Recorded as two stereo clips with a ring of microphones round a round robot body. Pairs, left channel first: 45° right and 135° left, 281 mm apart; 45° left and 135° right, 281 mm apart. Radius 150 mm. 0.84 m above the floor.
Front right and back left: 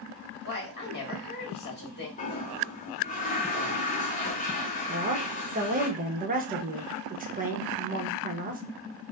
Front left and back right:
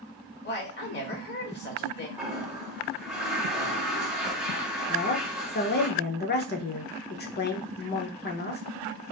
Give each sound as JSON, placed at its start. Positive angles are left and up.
{"t": 0.4, "sound": "a woman speaking", "azimuth_deg": 0, "distance_m": 1.6}
{"t": 2.2, "sound": "a toilet flushing", "azimuth_deg": -50, "distance_m": 0.6}
{"t": 4.9, "sound": "a woman speaking", "azimuth_deg": 85, "distance_m": 0.9}